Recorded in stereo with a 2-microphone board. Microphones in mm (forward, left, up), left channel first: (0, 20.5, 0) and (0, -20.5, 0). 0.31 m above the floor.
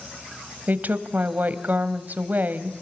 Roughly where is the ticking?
I don't hear ticking.